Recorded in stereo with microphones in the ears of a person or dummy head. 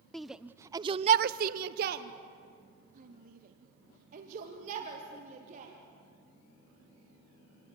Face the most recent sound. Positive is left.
turn(degrees=-45)  # may be behind; listen again after turning